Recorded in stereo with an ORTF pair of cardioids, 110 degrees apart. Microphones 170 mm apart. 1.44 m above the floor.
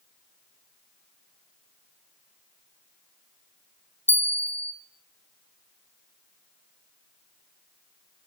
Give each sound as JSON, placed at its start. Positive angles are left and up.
{"t": 4.1, "sound": "a bell", "azimuth_deg": 10, "distance_m": 0.9}